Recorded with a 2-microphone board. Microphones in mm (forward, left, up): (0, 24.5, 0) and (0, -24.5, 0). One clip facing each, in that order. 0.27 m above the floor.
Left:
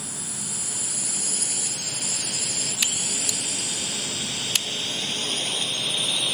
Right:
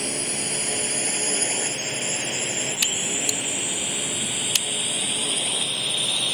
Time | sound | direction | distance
0.0 | a drone | 60° right (ahead or behind) | ?